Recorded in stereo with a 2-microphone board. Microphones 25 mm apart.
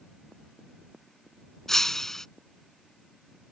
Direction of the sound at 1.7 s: 15° left (ahead or behind).